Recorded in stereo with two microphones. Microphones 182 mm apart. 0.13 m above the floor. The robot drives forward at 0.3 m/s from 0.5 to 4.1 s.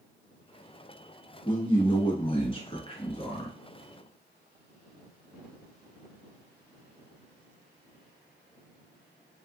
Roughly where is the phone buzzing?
I don't hear a phone buzzing.